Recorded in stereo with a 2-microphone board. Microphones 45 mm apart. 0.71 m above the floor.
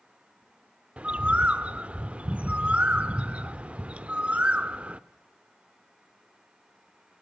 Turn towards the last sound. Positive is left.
turn(degrees=-30)  # may be behind; listen again after turning